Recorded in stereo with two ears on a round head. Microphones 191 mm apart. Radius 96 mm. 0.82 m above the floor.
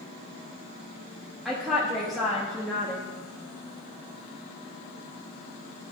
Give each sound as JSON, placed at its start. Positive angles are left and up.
{"t": 1.4, "sound": "a woman speaking", "side_deg": 0, "distance_m": 1.1}